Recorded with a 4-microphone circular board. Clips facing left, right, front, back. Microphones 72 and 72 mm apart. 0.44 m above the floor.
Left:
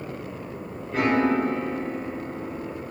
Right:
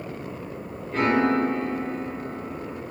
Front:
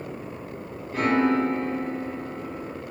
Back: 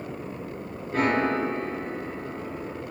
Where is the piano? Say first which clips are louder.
Even, front 2 dB; 165° left, 0.8 m.